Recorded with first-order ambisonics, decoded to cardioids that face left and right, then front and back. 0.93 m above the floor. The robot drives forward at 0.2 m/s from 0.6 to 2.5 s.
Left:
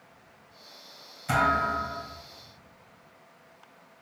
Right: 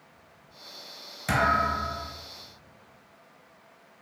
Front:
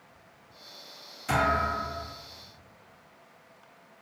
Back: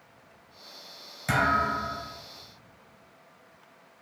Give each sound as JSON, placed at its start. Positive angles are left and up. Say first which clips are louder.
{"t": 1.3, "sound": "a thud", "louder": "right 1 dB, back 1 dB", "azimuth_deg": -125, "distance_m": 1.6}